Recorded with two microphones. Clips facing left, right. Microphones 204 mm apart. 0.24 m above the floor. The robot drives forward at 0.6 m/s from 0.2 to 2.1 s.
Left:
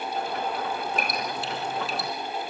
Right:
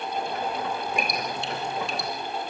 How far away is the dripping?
About 8 m.